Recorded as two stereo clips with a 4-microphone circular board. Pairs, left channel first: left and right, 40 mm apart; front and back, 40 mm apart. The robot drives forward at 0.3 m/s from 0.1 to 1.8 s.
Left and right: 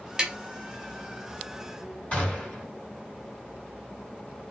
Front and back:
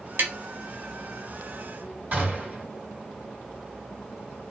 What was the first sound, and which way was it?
Tapping, 160° right.